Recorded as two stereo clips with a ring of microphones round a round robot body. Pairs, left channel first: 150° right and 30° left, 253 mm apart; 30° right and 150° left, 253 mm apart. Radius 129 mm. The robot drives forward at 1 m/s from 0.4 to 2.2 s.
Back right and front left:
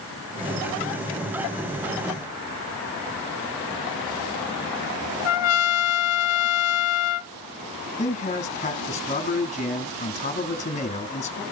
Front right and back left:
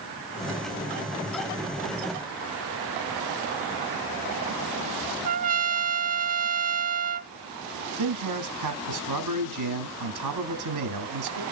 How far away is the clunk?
No clunk in this recording.